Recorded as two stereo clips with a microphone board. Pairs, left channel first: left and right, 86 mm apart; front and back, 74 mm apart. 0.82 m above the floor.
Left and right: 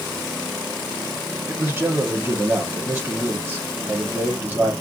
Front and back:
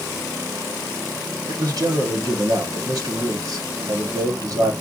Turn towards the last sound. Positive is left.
turn(degrees=-150)